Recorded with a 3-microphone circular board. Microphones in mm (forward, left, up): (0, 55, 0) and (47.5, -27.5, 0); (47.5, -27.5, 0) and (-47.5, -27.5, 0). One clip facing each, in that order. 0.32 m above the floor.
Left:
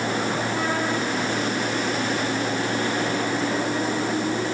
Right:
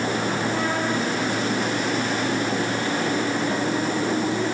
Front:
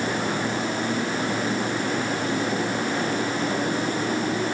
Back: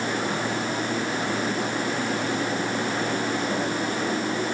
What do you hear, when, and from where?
Only background noise.